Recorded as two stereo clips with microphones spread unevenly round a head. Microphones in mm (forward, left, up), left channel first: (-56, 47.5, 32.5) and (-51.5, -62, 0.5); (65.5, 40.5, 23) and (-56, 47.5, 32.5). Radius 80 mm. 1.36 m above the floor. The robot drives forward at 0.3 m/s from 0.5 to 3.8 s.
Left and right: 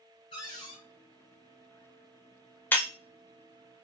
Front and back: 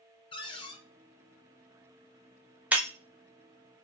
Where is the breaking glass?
115° left, 0.6 m; by 2.9 s 125° left, 0.6 m.